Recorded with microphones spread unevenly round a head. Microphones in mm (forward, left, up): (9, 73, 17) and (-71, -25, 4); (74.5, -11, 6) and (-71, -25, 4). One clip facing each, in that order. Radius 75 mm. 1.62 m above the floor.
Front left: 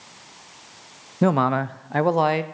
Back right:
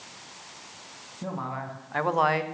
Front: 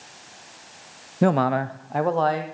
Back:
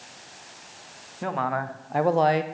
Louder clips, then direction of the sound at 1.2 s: Front left 14 dB, front 8 dB; 40° left.